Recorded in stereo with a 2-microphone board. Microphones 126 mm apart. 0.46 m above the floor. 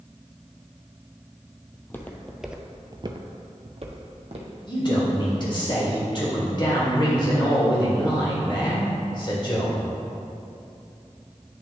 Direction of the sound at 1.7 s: 20° left (ahead or behind).